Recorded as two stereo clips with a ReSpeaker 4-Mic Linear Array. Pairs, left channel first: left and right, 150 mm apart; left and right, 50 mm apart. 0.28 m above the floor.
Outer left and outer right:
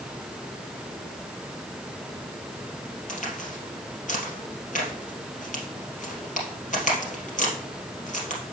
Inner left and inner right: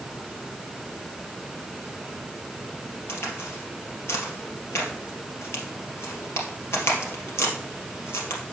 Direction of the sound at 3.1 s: 60° left (ahead or behind).